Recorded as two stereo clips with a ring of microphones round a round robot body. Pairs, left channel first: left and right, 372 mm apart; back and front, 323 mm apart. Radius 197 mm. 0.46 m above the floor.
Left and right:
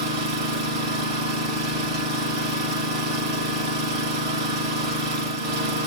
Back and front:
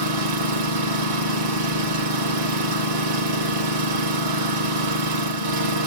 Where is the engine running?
35° right, 3 m.